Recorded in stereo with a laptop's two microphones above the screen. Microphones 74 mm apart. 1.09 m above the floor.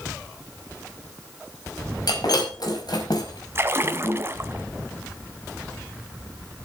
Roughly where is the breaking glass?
Left.